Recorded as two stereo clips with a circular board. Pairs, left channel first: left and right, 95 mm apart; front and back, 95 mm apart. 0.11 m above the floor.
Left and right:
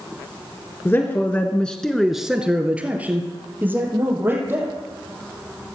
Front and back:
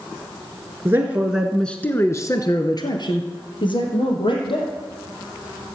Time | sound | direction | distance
0.8 | a man speaking | 135° left | 1.7 m